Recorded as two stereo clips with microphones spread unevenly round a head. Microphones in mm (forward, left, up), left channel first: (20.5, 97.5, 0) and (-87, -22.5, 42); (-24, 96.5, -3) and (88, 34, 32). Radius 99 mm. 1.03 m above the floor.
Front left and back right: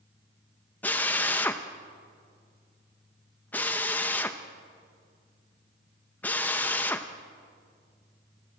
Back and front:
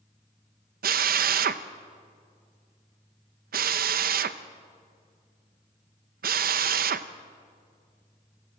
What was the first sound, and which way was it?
A drill, 25° right.